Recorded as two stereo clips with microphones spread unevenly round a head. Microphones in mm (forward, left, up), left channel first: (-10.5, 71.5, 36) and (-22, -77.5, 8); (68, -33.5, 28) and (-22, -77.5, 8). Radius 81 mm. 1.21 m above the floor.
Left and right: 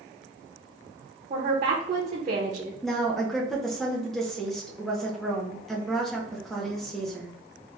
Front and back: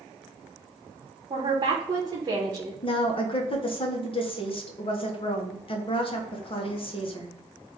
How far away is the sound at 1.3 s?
About 0.9 m.